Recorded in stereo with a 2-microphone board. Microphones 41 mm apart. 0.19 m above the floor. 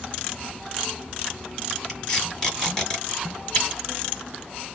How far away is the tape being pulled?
About 1.6 m.